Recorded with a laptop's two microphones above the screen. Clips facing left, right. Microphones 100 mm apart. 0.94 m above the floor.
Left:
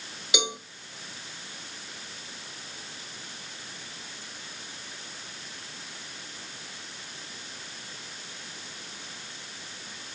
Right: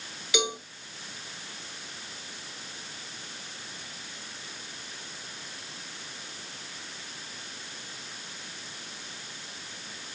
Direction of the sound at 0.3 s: 20° left (ahead or behind).